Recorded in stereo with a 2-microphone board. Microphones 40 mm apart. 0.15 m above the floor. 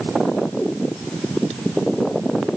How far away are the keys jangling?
No keys jangling in this recording.